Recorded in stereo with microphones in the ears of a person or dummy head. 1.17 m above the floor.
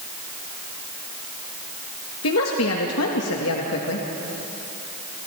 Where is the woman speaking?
75° left (ahead or behind), 1.8 m.